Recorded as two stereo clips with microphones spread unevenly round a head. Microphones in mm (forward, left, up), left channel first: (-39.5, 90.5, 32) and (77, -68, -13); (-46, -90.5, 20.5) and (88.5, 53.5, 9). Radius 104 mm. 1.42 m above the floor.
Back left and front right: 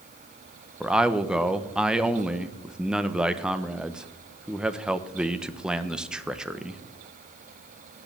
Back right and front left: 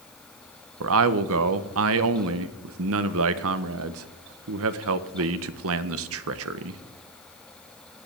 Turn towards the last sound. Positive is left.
turn(degrees=35)